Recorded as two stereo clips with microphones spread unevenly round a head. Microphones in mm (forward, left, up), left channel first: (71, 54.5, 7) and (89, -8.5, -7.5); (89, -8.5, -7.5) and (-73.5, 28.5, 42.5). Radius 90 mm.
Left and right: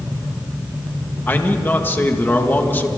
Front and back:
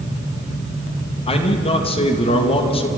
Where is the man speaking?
45° left, 2 m.